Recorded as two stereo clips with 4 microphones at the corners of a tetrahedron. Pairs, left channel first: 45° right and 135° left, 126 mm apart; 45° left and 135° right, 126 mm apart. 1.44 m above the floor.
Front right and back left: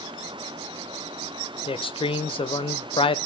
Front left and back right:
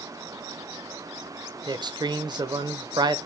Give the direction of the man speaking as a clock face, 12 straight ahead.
3 o'clock.